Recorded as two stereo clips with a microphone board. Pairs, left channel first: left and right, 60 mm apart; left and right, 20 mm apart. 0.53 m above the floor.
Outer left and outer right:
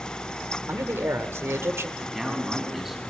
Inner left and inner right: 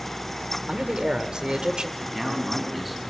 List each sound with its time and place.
0.7 s a man speaking: 45° right (ahead or behind), 1.6 m
2.0 s a man speaking: 5° right (ahead or behind), 4.5 m